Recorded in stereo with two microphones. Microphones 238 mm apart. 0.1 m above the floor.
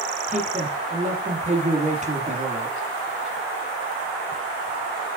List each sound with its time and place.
0.3 s a man speaking: 30° right (ahead or behind), 2 m